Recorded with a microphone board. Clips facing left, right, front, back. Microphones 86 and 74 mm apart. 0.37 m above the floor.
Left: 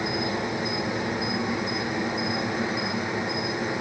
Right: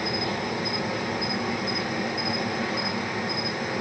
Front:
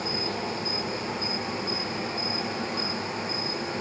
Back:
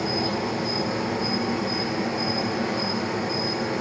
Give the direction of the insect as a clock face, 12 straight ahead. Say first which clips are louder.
Left 1 dB, back 5 dB; 7 o'clock.